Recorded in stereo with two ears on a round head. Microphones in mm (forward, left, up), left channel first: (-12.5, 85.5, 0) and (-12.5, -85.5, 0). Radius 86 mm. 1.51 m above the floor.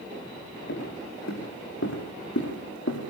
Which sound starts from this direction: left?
Footsteps, at 0.7 s.